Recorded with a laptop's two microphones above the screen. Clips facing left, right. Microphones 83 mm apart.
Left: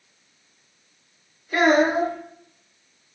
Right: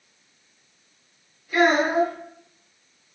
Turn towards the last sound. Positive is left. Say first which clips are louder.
# left 1 dB
turn(degrees=45)  # may be behind; listen again after turning